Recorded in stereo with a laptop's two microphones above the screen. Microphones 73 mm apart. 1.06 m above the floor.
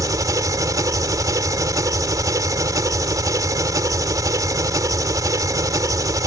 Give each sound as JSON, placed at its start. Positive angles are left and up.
{"t": 0.0, "sound": "an engine running", "side_deg": -50}